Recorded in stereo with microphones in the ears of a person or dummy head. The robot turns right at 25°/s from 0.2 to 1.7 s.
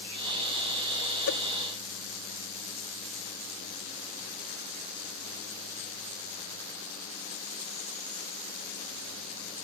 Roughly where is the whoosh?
Left.